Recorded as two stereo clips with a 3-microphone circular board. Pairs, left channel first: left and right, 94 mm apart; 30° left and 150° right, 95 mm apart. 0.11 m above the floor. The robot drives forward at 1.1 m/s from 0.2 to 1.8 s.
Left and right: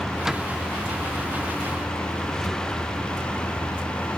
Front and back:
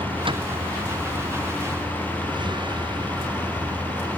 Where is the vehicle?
175° right; by 4.2 s 170° left.